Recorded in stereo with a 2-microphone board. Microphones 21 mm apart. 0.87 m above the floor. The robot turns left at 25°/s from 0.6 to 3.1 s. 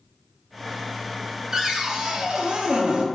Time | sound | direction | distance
1.5 | a cupboard door | 30° right | 0.6 m